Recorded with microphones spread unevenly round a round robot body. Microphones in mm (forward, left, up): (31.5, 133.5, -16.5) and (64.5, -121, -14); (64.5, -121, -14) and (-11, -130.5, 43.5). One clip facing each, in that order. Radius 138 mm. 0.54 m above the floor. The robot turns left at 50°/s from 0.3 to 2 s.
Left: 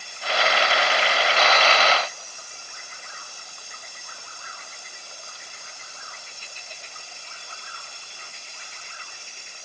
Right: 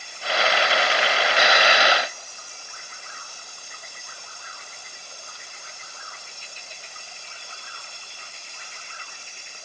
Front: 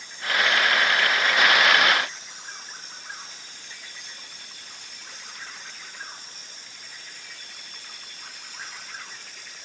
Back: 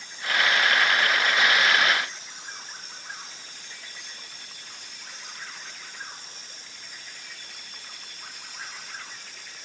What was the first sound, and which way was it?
Only background noise.